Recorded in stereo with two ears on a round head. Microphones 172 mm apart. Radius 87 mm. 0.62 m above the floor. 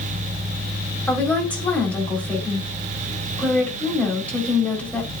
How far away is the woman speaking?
About 1.6 m.